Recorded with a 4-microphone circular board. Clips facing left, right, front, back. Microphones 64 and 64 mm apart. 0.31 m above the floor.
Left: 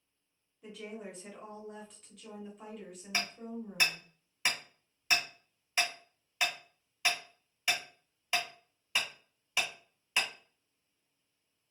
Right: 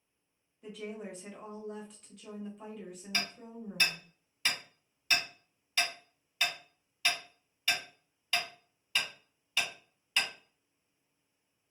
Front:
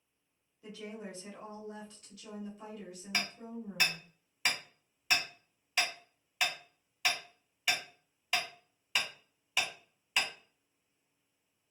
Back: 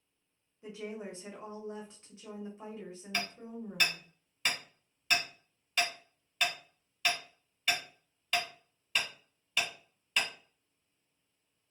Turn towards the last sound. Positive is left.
turn(degrees=60)